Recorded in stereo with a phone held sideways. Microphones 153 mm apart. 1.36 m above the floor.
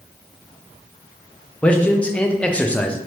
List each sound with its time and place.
1.6 s a man speaking: 10° left (ahead or behind), 0.5 m